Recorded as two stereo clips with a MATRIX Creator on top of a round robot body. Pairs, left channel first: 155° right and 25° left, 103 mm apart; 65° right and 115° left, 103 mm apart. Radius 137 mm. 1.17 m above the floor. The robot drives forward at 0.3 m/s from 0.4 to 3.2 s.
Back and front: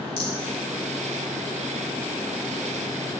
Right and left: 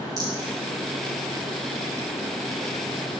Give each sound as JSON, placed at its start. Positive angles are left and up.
{"t": 0.2, "sound": "a rattle", "azimuth_deg": 165, "distance_m": 3.5}